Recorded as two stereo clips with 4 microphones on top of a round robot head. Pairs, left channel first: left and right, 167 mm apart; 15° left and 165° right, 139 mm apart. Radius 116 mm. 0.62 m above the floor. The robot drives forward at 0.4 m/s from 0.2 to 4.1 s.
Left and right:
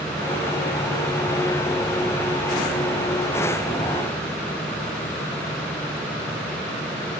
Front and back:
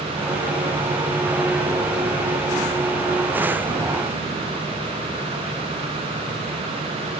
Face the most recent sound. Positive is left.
No sound to turn to.